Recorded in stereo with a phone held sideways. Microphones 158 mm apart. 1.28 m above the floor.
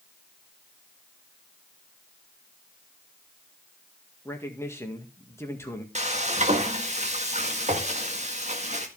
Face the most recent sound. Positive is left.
turn(degrees=-45)  # may be behind; listen again after turning